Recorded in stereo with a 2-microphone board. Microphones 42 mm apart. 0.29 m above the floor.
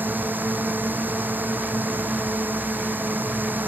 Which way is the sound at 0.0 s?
50° right (ahead or behind).